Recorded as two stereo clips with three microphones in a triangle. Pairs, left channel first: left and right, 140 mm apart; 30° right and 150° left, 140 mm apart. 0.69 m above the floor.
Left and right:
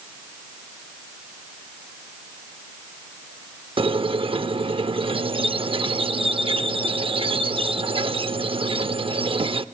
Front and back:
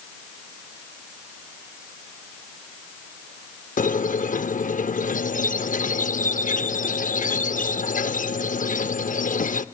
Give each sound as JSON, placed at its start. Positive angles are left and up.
{"t": 3.8, "sound": "a squeak", "azimuth_deg": -40, "distance_m": 0.6}